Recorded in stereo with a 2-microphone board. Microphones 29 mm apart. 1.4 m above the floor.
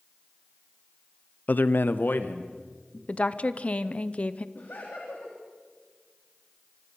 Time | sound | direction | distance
1.5 | a man speaking | 55° left (ahead or behind) | 0.6 m
3.1 | a woman speaking | 40° left (ahead or behind) | 0.7 m
4.5 | laughter | 85° left | 3 m